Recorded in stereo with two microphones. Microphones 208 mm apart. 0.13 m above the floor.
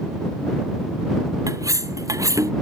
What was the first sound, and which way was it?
Cutlery clinking, 15° right (ahead or behind).